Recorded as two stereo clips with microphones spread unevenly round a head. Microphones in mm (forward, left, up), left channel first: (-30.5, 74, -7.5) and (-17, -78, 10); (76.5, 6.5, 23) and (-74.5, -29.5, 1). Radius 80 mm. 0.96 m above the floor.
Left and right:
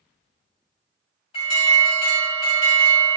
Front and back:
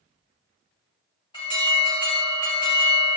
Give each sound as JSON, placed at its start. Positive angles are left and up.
{"t": 1.3, "sound": "an alarm", "azimuth_deg": 70, "distance_m": 1.8}